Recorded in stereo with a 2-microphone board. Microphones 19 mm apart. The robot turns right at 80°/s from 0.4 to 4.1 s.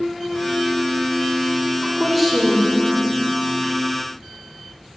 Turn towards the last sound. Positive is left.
turn(degrees=160)